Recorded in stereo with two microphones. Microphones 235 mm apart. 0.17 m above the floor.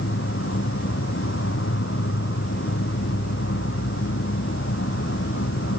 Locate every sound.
0.0 s an insect: 60° left (ahead or behind), 1.4 m